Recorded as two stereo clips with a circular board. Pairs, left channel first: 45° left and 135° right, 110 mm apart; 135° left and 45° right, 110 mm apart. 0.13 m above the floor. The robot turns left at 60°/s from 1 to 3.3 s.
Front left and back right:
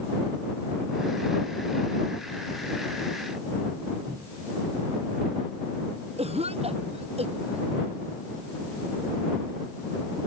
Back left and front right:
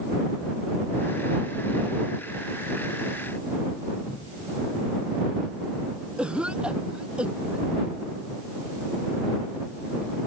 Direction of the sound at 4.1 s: 155° left.